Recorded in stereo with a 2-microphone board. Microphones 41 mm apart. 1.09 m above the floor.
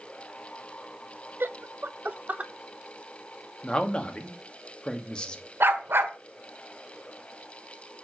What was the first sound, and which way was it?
Laughter, 65° right (ahead or behind).